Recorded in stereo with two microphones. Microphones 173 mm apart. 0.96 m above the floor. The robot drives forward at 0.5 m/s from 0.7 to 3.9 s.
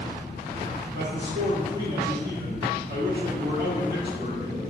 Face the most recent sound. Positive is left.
turn(degrees=-60)  # may be behind; listen again after turning